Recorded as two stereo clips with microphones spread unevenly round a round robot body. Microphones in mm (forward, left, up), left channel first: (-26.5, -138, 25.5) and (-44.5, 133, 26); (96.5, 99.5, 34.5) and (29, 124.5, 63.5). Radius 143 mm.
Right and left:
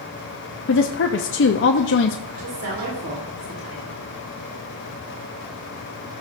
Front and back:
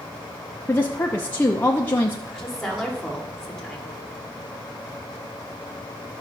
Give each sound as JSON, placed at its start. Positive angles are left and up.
{"t": 0.7, "sound": "a woman speaking", "azimuth_deg": -55, "distance_m": 0.6}
{"t": 2.3, "sound": "a woman speaking", "azimuth_deg": 55, "distance_m": 3.0}